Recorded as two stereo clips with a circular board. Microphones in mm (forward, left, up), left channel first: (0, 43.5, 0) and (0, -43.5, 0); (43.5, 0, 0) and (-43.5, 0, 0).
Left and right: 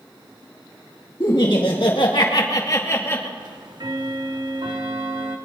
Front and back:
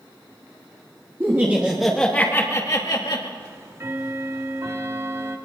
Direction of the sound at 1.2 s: 120° left.